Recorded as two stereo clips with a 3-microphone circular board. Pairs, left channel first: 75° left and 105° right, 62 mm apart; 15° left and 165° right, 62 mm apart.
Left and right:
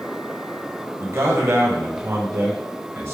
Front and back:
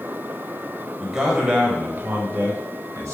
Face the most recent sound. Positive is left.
turn(degrees=-140)